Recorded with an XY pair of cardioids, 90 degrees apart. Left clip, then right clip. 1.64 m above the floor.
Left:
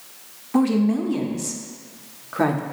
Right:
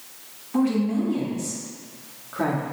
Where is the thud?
No thud in this recording.